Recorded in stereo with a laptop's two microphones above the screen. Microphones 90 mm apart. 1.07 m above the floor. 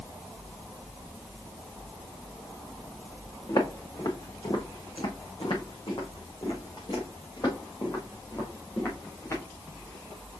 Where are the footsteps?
50° left (ahead or behind), 3 m; by 9.4 s 35° left (ahead or behind), 4 m.